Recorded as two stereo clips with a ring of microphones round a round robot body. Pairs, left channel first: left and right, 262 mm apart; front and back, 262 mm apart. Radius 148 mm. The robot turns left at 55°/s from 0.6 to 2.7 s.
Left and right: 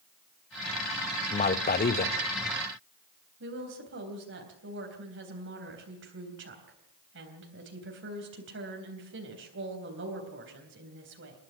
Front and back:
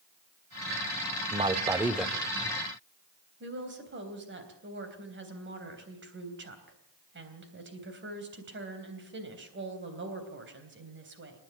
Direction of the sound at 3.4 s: 135° right.